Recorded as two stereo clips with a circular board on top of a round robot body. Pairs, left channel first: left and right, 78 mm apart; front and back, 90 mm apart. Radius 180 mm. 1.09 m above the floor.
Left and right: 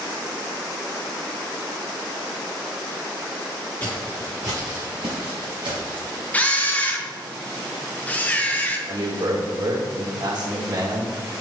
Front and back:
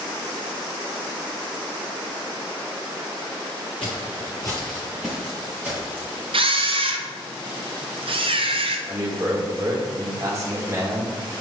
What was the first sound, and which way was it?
Footsteps, 25° left.